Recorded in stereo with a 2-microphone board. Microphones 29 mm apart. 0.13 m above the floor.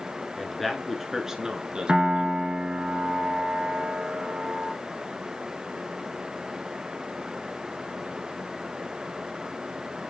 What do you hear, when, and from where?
0.4 s a man speaking: 10° left (ahead or behind), 1.5 m; by 2.4 s 45° right (ahead or behind), 1.6 m
1.9 s a piano: 40° right (ahead or behind), 1.5 m